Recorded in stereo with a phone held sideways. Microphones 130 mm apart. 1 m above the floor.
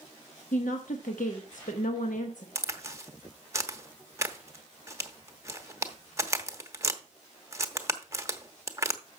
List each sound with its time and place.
0.5 s a woman speaking: 80° left, 1.2 m
2.5 s a crack: 20° right (ahead or behind), 1.0 m